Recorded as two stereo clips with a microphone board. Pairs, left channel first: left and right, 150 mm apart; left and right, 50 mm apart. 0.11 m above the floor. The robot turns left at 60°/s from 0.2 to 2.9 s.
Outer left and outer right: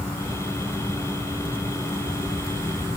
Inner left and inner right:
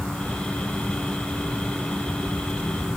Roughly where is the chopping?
I don't hear chopping.